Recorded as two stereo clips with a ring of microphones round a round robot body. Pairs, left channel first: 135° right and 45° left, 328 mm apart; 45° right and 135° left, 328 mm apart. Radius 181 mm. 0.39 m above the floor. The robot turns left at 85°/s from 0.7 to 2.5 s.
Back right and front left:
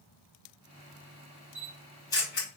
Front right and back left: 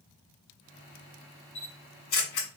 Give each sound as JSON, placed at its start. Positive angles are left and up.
{"t": 1.6, "sound": "a camera shutter", "azimuth_deg": -5, "distance_m": 1.8}